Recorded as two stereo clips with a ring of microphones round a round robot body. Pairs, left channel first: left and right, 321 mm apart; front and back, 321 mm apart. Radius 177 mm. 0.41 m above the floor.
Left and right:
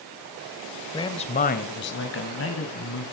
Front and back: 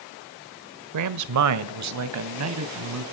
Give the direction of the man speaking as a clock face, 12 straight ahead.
6 o'clock.